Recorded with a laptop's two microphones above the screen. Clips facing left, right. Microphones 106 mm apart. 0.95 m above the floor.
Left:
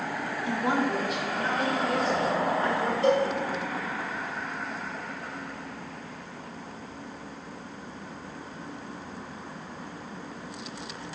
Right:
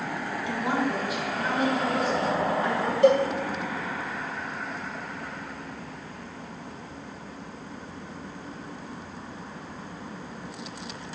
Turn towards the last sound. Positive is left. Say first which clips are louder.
# right 5 dB
turn(degrees=-75)  # may be behind; listen again after turning